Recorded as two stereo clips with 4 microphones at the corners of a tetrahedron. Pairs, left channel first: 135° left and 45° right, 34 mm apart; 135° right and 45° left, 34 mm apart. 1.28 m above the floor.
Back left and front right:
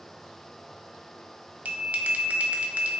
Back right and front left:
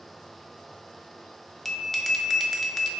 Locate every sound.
1.6 s a bell: 55° right, 0.6 m